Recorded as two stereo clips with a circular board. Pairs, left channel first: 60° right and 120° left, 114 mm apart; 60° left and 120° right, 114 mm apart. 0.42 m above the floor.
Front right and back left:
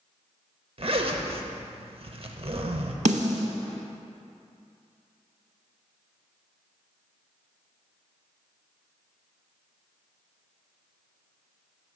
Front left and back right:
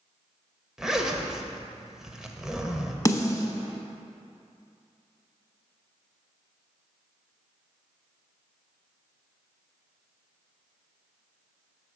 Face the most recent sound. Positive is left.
turn(degrees=120)